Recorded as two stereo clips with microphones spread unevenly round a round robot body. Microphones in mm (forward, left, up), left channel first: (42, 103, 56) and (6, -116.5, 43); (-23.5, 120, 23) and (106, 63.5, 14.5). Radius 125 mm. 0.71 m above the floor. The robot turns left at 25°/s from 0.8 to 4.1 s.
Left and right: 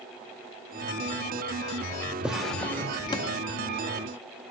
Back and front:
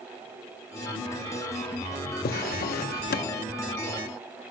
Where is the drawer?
175° left, 0.6 m; by 3.4 s 150° left, 0.6 m.